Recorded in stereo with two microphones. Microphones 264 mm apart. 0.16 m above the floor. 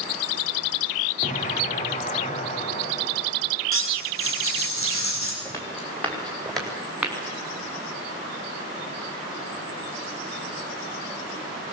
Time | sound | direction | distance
1.2 | an explosion | 25° left (ahead or behind) | 3 m
3.7 | cutlery clinking | 55° left (ahead or behind) | 6 m
5.5 | footsteps | 10° left (ahead or behind) | 7 m